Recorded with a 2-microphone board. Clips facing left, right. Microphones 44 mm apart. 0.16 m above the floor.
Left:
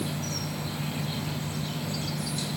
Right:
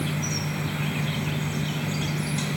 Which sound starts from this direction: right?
An insect, at 0.0 s.